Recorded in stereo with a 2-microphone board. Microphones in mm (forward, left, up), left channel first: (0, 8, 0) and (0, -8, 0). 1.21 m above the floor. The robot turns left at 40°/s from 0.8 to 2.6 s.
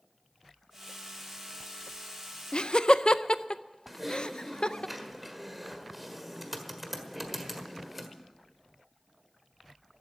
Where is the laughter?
65° left (ahead or behind), 0.6 m.